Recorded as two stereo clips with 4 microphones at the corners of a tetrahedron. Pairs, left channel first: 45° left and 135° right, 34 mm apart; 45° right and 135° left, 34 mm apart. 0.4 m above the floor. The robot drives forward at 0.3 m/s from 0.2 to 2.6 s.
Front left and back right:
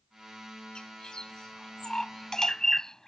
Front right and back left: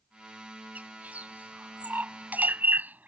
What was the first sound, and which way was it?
A bird, 105° left.